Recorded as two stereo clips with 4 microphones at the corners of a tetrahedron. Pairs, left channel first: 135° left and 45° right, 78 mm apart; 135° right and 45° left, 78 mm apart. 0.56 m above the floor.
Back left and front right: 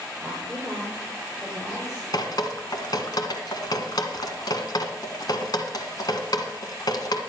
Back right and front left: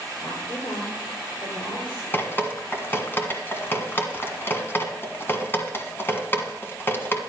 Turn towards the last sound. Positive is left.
turn(degrees=165)